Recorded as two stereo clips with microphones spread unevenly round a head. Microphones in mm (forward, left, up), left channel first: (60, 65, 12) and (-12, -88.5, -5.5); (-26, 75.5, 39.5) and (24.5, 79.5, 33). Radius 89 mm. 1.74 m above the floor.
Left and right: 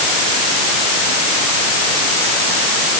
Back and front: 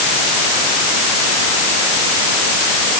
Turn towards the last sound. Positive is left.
No sound to turn to.